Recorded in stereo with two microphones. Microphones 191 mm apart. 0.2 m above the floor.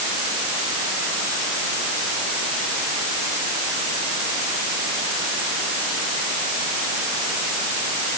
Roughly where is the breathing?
No breathing in this recording.